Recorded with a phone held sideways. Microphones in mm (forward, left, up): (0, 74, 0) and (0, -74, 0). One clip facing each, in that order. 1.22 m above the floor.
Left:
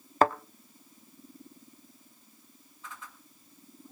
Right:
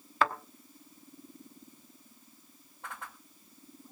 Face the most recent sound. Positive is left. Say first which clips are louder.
# right 3 dB
turn(degrees=-60)  # may be behind; listen again after turning